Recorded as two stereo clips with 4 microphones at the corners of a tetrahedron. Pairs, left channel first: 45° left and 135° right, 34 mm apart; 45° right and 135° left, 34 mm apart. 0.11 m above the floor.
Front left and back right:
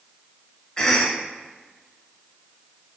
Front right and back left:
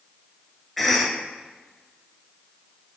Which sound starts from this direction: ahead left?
A cough, at 0.8 s.